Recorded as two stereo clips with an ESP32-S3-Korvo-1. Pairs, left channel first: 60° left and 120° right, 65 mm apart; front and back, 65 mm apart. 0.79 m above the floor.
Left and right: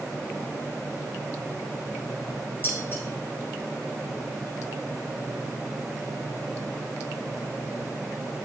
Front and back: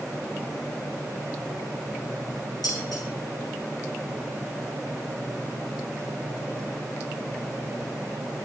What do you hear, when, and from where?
2.6 s dishes clattering: 5° left, 8 m